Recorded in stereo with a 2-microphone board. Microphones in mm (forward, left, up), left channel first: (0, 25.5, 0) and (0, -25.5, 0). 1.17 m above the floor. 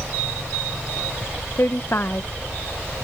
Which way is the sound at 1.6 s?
50° left (ahead or behind).